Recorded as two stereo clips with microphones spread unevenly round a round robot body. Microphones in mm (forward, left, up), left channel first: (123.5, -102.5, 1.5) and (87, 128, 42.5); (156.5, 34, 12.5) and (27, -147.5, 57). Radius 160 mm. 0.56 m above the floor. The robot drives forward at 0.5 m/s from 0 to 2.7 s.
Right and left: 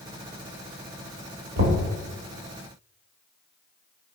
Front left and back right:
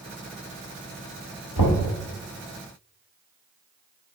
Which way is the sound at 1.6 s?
75° left.